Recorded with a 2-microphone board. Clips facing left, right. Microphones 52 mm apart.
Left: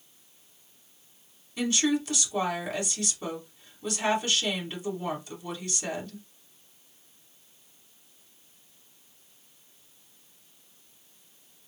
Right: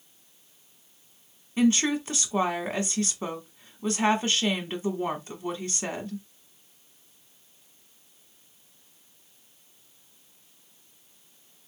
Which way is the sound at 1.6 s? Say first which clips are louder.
Right 3 dB; 30° right (ahead or behind).